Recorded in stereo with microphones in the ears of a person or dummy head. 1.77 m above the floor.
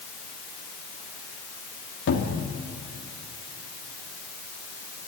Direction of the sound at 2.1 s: 75° left (ahead or behind).